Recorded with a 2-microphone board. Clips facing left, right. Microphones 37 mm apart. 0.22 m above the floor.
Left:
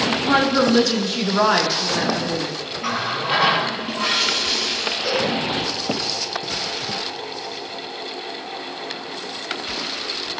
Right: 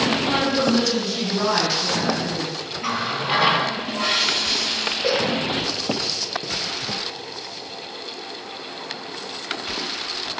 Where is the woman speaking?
35° left (ahead or behind), 2.5 m; by 2.6 s 60° left (ahead or behind), 3.5 m.